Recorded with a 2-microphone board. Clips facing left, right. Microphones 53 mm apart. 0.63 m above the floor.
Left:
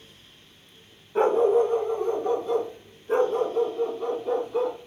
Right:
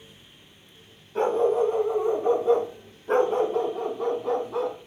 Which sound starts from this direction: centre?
A dog barking, at 1.1 s.